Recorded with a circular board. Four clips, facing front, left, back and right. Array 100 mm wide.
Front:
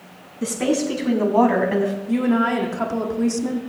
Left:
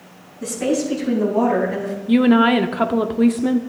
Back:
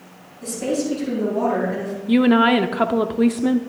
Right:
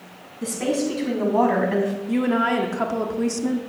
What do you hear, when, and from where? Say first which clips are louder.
0.4 s a woman speaking: left 3 dB, front 2 dB; 5° right, 4 m; by 1.9 s 30° right, 3 m
2.1 s a woman speaking: left 10 dB, back 7 dB; 145° left, 0.7 m